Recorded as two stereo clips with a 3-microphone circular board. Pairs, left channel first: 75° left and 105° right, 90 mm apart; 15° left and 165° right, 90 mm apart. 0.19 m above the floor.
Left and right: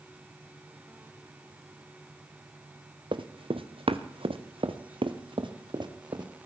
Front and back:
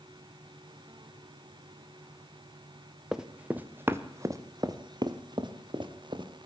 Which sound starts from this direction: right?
Running footsteps, at 3.1 s.